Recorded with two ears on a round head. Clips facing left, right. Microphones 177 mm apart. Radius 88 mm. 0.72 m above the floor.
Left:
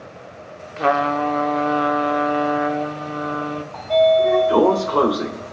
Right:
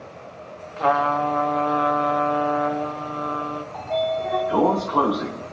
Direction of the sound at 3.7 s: 60° left (ahead or behind).